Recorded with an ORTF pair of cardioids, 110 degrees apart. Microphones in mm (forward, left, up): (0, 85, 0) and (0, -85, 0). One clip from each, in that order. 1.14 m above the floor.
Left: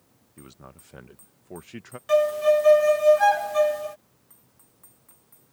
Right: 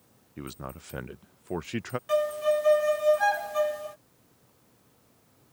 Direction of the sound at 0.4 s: 35° right.